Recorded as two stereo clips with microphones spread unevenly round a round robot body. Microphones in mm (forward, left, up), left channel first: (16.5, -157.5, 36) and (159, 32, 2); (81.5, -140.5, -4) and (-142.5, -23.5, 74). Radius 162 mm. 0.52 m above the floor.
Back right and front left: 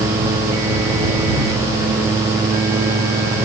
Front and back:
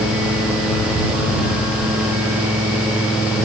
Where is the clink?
No clink in this recording.